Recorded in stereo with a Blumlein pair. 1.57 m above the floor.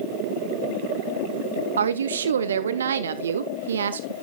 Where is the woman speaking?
65° right, 1.1 m.